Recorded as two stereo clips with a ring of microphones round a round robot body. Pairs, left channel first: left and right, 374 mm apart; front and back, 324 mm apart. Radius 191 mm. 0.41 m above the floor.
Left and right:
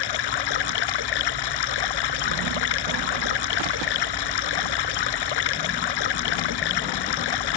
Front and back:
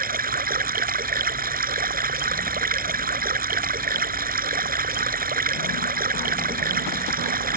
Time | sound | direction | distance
0.0 | running water | 115° left | ?